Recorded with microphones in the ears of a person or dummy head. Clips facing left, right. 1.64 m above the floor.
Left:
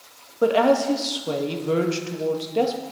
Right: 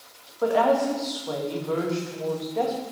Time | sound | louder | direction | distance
0.4 | a woman speaking | left 3 dB | 40° left (ahead or behind) | 1.8 m